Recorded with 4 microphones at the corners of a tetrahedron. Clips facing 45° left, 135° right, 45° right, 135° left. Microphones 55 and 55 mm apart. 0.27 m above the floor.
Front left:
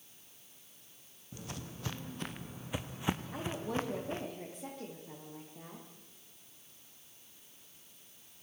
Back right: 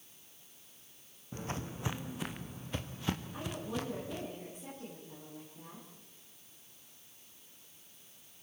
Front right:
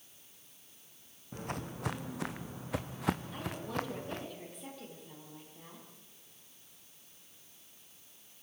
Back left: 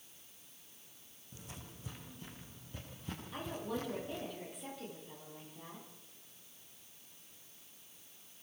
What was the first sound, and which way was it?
Footsteps, 85° right.